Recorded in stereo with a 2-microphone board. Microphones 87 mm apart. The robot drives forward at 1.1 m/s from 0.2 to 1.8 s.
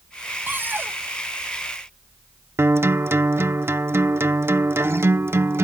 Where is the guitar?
30° right (ahead or behind).